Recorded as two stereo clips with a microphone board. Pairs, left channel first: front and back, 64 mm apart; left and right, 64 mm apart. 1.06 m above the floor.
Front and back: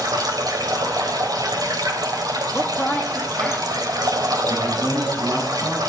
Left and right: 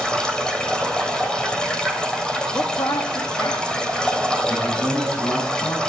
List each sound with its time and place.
0.0 s running water: 165° left, 3 m
2.5 s a woman speaking: 85° left, 2 m
4.5 s a man speaking: 115° left, 7 m